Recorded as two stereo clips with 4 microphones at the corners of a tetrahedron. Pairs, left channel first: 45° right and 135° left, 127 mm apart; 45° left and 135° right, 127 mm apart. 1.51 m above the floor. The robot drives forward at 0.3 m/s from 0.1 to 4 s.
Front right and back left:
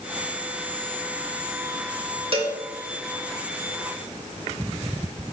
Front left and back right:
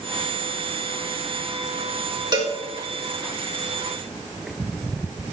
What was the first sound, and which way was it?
A cowbell, 175° left.